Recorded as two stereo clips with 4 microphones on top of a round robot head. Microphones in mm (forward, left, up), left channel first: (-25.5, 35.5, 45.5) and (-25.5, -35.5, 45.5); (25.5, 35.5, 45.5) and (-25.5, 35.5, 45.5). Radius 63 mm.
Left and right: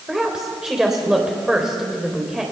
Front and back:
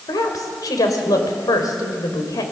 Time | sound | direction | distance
0.1 | a woman speaking | 5° right | 3.5 m